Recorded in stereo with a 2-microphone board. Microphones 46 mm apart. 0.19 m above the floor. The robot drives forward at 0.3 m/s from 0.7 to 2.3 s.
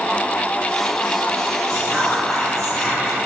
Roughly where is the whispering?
Centre.